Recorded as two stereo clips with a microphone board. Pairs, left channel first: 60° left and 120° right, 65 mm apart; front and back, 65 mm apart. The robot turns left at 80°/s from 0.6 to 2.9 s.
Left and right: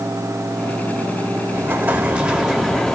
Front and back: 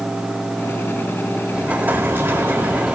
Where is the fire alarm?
No fire alarm in this recording.